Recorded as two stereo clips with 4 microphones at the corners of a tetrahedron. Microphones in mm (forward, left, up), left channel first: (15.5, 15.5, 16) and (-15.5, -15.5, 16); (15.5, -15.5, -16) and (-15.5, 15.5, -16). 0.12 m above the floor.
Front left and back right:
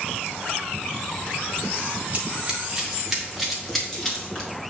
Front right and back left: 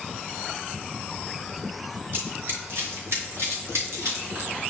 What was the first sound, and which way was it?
Running footsteps, 170° left.